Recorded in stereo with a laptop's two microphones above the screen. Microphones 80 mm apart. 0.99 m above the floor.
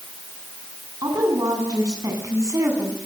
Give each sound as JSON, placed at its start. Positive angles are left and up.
{"t": 1.0, "sound": "a woman speaking", "side_deg": -55, "distance_m": 10.0}